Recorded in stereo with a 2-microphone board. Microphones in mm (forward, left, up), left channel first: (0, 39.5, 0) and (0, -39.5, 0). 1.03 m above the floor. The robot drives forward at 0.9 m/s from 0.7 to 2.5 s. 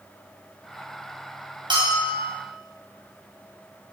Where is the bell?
80° right, 3.5 m; by 2.3 s 70° right (ahead or behind), 4 m.